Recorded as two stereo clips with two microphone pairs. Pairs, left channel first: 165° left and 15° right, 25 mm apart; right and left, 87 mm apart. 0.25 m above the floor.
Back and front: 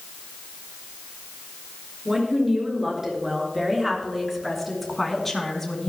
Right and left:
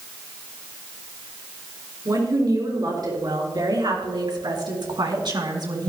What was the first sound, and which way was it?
A woman speaking, 50° left.